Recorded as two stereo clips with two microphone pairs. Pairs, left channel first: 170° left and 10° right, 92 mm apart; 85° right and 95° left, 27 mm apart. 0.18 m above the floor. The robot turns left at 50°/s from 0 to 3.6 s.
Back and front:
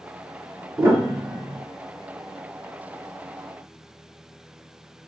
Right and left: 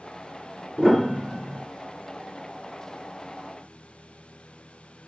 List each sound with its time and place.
0.8 s a piano: 20° right, 1.6 m; by 1.6 s 65° right, 1.6 m